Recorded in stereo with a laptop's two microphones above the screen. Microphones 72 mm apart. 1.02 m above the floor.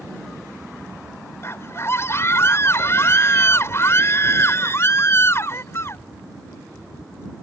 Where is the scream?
40° left (ahead or behind).